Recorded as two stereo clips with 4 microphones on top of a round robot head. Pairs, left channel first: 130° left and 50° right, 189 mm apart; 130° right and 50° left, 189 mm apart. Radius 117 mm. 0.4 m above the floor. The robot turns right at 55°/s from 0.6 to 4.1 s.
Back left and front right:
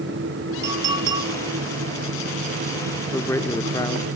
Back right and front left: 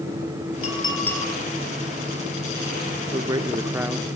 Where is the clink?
75° right, 8.5 m; by 1.2 s 45° right, 8.5 m.